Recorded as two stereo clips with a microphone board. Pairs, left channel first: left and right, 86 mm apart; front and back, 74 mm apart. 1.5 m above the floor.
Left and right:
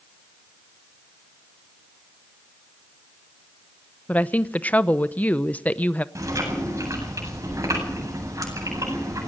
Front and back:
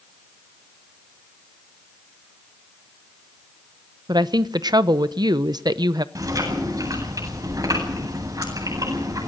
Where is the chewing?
145° right, 9 m.